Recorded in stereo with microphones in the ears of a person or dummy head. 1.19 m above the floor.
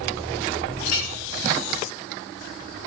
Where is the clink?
65° left (ahead or behind), 0.8 m.